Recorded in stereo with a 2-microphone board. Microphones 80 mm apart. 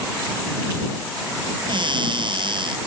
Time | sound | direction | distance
1.7 | a cupboard door | 80° right | ?